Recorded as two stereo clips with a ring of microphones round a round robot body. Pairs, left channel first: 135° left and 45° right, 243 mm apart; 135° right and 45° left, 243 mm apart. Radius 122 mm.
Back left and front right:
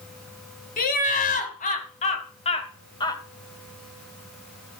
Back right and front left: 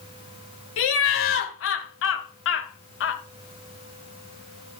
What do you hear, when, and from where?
0.8 s laughter: 170° right, 2.5 m; by 3.2 s 155° right, 1.2 m